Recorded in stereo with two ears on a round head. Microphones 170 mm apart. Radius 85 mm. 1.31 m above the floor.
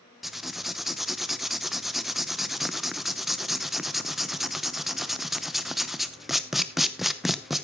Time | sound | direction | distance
0.2 | writing | centre (ahead or behind) | 0.8 m